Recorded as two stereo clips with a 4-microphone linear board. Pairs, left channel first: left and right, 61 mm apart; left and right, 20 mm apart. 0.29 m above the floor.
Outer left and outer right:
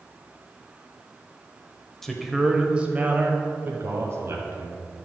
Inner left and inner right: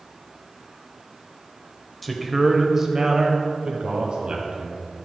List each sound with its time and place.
2.0 s a man speaking: 5° left (ahead or behind), 0.9 m; by 4.8 s 60° right (ahead or behind), 1.6 m